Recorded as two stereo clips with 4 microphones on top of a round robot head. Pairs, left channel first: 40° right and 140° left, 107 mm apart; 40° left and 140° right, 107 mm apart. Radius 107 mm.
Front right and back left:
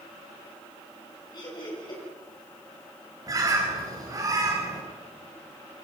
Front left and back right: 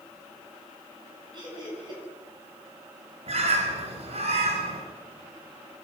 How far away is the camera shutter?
No camera shutter in this recording.